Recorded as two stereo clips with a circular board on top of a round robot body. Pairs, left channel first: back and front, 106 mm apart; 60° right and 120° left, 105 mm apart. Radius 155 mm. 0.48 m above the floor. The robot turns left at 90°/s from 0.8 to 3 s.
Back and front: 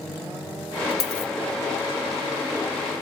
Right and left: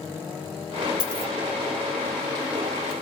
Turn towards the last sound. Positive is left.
turn(degrees=20)